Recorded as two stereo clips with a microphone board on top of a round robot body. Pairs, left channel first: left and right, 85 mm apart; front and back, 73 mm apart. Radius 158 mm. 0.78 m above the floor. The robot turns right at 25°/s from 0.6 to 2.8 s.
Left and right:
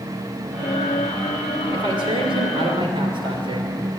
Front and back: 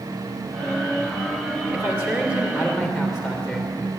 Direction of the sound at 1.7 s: 125° right.